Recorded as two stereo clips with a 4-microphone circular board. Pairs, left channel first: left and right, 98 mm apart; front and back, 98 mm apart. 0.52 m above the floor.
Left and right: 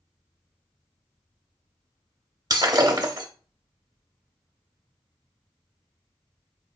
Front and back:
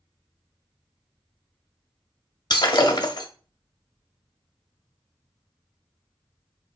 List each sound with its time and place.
2.5 s breaking glass: 40° right, 0.7 m